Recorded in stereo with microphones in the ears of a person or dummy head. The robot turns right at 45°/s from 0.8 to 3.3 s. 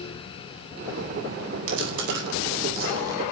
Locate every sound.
1.7 s chewing: 85° right, 9.5 m; by 3.2 s 15° right (ahead or behind), 9.5 m